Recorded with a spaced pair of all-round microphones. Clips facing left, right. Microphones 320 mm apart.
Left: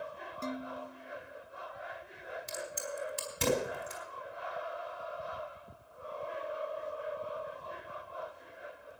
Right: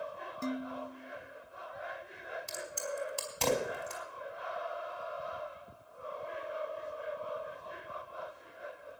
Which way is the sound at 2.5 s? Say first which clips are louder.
Right 1 dB; 25° left (ahead or behind).